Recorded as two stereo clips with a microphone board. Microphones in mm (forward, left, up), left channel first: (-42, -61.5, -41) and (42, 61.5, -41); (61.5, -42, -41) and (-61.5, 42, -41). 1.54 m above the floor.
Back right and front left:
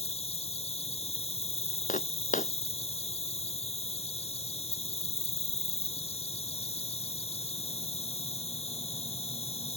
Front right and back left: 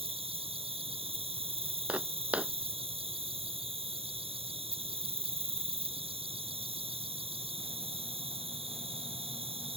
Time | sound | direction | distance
0.0 | an insect | 165° right | ?
1.9 | footsteps | 135° right | ?